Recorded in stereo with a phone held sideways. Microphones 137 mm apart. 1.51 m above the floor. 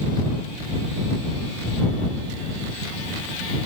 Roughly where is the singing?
I don't hear singing.